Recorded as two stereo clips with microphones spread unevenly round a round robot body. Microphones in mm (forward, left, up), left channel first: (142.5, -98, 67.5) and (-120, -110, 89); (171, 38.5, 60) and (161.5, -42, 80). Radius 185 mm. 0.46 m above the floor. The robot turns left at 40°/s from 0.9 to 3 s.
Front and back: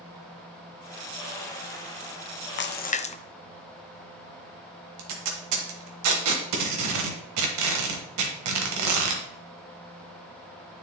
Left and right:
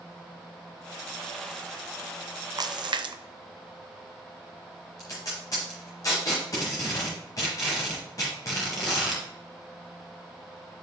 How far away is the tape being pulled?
About 0.9 m.